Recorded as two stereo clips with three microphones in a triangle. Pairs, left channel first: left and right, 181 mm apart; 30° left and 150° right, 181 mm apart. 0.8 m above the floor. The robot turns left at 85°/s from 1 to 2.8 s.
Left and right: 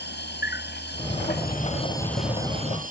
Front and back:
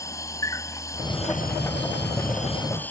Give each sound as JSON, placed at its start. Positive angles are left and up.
{"t": 0.0, "sound": "an insect", "azimuth_deg": 100}